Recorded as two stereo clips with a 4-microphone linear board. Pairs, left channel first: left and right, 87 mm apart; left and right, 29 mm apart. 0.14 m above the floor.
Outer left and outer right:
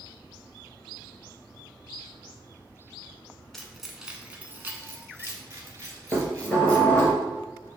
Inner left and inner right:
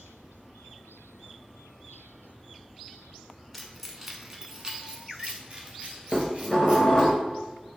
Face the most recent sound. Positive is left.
turn(degrees=20)  # may be behind; listen again after turning